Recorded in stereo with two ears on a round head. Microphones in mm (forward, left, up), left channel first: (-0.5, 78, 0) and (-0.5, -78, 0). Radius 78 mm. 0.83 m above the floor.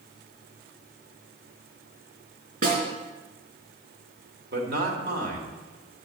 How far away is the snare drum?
About 4 m.